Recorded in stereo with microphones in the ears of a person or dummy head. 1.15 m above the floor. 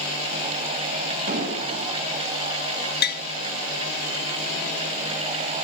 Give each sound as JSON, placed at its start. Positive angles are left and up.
{"t": 1.3, "sound": "an explosion", "side_deg": -45, "distance_m": 7.0}
{"t": 3.0, "sound": "tapping", "side_deg": 50, "distance_m": 0.8}